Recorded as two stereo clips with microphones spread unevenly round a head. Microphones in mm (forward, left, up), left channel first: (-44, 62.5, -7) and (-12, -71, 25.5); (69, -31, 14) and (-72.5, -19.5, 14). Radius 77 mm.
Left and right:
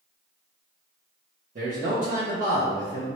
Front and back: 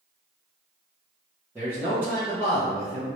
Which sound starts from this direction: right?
A man speaking, at 1.6 s.